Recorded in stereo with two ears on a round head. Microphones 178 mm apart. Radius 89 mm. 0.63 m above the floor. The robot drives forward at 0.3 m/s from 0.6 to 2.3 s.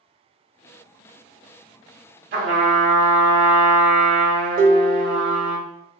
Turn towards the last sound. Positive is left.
turn(degrees=-40)  # may be behind; listen again after turning